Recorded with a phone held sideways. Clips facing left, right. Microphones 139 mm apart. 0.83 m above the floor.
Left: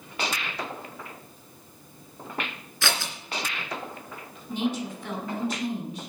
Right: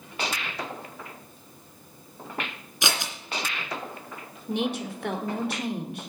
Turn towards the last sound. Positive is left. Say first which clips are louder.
# even
turn(degrees=-65)  # may be behind; listen again after turning